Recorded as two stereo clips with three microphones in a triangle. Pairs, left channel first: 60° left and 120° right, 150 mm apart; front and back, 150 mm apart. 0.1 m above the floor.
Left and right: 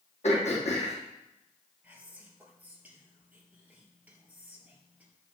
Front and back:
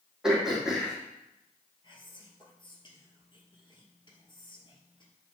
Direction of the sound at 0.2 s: 95° left.